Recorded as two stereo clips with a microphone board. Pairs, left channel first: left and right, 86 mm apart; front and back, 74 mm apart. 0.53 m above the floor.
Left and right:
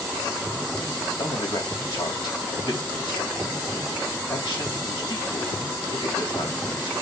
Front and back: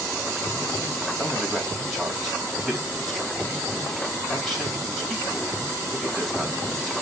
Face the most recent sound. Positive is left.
turn(degrees=90)